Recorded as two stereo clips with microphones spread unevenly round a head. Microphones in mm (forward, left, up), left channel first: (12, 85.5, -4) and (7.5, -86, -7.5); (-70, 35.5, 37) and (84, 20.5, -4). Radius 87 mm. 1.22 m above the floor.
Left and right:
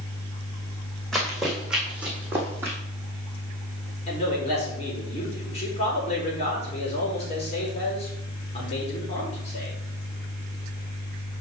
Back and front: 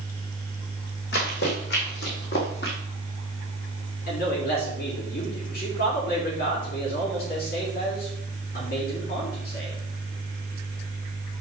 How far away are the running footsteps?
About 4 m.